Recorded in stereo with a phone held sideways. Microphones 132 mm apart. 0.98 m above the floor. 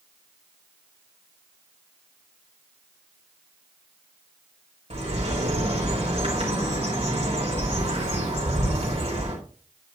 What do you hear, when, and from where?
4.9 s a bird: 50° right (ahead or behind), 4 m